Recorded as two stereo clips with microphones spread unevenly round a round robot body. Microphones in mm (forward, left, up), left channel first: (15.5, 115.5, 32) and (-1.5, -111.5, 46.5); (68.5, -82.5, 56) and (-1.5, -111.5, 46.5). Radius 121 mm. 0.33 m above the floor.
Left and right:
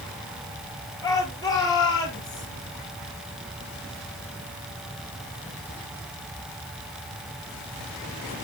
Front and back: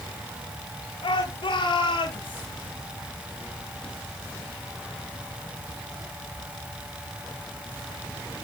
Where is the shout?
10° left, 9 m.